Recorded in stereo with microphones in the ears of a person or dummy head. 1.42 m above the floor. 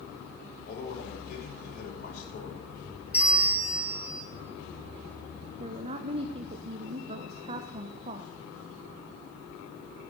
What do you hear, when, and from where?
0.7 s a man speaking: 50° left (ahead or behind), 6 m
3.1 s a bell: 5° right (ahead or behind), 1.5 m
5.6 s a woman speaking: 30° right (ahead or behind), 0.7 m